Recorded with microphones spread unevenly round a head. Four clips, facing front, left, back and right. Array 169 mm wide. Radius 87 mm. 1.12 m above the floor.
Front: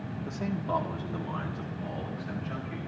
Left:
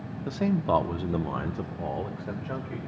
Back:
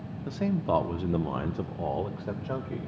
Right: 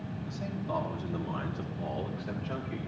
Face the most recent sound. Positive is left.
turn(degrees=170)